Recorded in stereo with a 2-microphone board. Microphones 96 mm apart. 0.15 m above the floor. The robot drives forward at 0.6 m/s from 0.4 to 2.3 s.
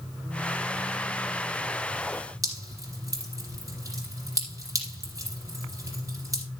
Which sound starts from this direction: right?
Dripping, at 2.4 s.